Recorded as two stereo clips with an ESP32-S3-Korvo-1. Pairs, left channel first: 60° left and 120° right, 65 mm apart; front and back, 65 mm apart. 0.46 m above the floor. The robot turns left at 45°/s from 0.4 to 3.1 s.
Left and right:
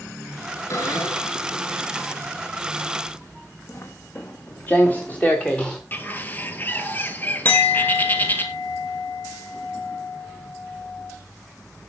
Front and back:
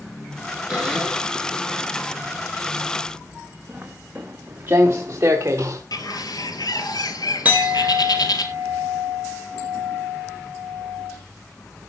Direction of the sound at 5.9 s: Straight ahead.